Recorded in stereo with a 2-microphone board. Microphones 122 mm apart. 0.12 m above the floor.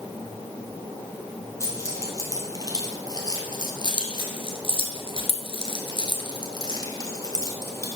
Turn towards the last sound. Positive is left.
turn(degrees=20)  # may be behind; listen again after turning